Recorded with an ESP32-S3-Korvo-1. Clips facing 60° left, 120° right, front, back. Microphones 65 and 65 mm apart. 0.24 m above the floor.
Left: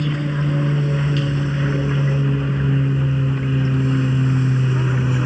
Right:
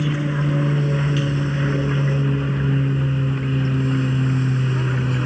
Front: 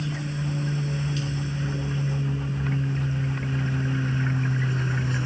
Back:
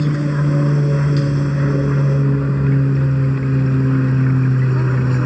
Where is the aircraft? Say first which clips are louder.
Even, back 12 dB; 155° left; by 5.3 s 145° left.